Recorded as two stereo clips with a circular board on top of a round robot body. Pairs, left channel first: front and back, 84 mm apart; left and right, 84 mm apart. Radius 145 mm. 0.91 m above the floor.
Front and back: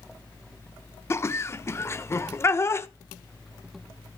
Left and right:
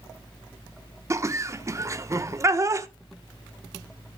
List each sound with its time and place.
1.1 s laughter: 50° right, 1.1 m